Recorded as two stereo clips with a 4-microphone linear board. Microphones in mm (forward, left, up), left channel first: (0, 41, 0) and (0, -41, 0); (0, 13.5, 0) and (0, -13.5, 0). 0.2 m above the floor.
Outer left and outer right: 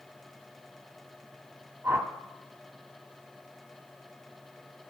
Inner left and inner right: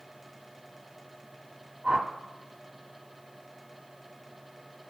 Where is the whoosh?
30° right (ahead or behind), 1.1 m.